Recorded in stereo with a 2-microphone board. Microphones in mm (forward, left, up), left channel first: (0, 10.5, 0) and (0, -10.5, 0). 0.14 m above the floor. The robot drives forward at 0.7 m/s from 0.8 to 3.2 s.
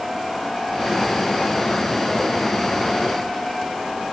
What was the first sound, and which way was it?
Only background noise.